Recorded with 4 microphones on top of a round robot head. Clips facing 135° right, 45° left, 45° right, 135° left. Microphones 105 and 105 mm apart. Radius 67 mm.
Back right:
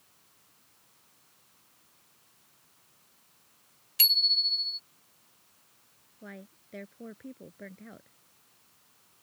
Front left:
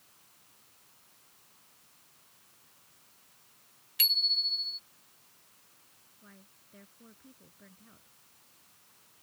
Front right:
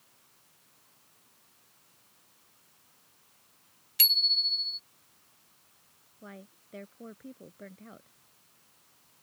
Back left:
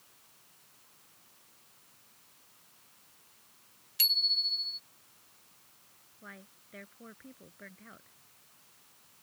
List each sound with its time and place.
4.0 s a bicycle bell: 80° right
6.2 s a woman speaking: 110° right